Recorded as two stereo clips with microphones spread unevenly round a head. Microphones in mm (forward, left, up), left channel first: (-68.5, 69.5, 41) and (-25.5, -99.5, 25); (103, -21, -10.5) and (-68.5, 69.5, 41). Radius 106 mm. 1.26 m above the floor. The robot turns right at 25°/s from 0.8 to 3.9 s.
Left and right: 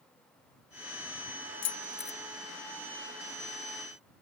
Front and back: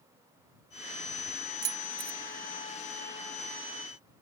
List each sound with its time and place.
1.6 s keys jangling: 115° left; by 2.2 s 125° left